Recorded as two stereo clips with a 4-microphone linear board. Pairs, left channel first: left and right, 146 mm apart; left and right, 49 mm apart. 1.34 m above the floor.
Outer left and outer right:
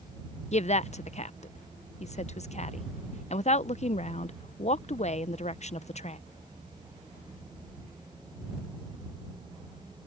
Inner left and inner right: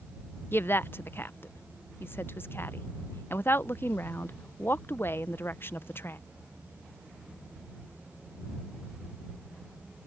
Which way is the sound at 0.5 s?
50° left (ahead or behind).